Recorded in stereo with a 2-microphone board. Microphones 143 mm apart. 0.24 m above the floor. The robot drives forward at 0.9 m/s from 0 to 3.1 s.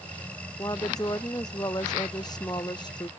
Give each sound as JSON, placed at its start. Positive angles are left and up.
{"t": 0.6, "sound": "a woman speaking", "side_deg": 25}